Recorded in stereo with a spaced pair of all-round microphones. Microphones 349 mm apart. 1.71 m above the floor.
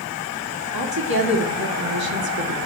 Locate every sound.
0.7 s a woman speaking: 85° right, 2 m